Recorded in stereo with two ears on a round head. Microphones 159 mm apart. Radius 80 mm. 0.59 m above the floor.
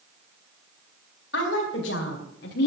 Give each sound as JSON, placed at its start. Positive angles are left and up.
{"t": 1.3, "sound": "a woman speaking", "side_deg": 65, "distance_m": 3.5}